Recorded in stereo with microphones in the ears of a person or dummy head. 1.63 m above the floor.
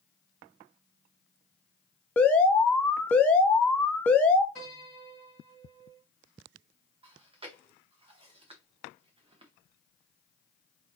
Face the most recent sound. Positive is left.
turn(degrees=-30)  # may be behind; listen again after turning